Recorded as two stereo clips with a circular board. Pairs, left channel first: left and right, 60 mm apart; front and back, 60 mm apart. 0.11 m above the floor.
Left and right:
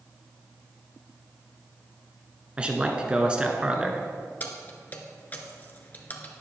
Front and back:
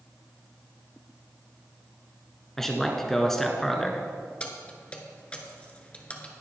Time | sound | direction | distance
2.6 | a man speaking | 70° right | 1.1 m
4.4 | keys jangling | 55° left | 1.3 m